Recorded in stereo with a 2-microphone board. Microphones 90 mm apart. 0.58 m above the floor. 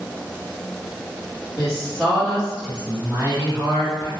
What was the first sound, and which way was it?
A woman speaking, 20° left (ahead or behind).